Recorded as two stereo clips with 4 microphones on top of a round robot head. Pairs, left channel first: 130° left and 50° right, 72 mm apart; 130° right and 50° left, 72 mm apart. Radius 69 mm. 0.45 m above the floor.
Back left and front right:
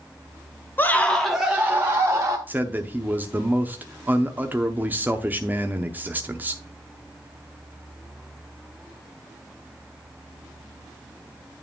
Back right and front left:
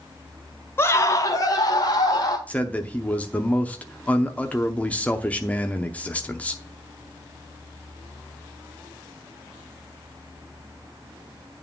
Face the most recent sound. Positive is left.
turn(degrees=-85)